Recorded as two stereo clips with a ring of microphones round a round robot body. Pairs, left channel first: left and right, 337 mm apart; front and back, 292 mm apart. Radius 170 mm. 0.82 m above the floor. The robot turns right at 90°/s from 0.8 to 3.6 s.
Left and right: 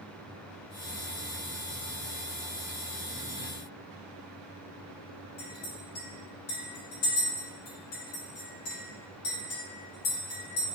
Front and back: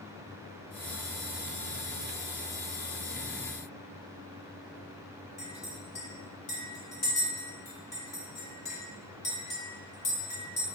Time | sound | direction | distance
5.4 | a clink | 70° left | 1.4 m